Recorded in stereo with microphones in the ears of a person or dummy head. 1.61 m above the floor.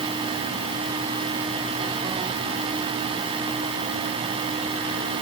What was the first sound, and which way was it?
Only background noise.